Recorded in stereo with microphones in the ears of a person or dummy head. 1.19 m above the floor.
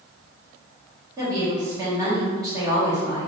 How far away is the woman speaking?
About 1.7 m.